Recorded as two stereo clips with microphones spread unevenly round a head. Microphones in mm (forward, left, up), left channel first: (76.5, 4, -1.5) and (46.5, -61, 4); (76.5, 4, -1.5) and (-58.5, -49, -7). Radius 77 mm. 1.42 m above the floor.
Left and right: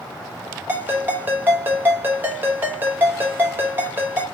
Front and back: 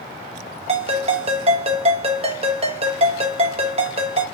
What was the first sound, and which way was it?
A ringtone, 155° right.